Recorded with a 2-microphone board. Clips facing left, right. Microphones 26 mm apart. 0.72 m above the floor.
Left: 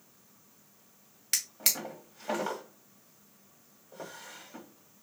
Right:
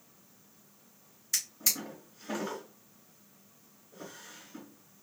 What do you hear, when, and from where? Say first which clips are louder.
1.3 s a drawer: left 1 dB; 80° left, 1.0 m